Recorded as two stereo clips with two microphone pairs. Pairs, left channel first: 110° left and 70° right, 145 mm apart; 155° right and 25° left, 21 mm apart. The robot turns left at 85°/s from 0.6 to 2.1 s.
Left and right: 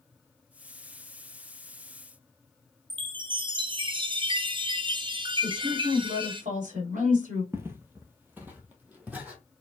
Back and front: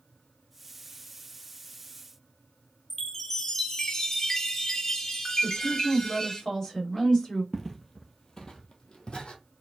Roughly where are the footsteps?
Right.